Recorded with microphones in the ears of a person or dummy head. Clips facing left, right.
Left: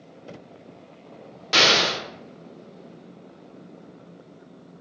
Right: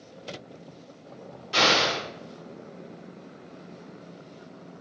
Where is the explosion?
75° left (ahead or behind), 1.0 m.